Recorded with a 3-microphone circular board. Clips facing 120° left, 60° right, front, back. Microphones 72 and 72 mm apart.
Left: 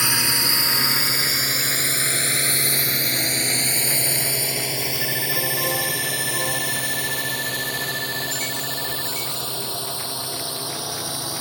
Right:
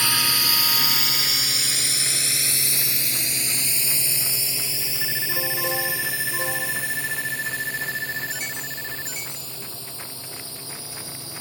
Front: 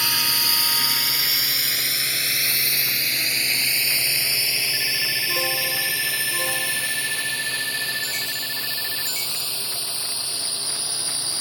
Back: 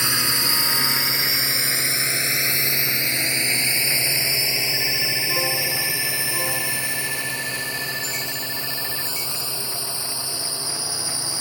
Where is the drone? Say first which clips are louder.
Left 1 dB, back 2 dB; 160° left; by 11.4 s 110° left.